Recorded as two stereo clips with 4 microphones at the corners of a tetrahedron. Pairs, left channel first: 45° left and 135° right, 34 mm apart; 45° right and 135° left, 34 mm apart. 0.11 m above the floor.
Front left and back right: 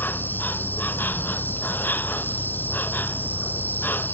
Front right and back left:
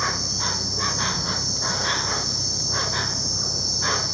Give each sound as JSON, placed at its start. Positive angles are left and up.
{"t": 0.0, "sound": "an insect", "azimuth_deg": 45}